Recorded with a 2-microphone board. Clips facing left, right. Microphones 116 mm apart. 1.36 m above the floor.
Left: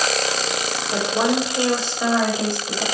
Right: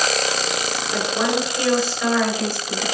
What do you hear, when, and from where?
0.9 s a woman speaking: 30° left (ahead or behind), 6.5 m; by 2.8 s 20° left (ahead or behind), 7.5 m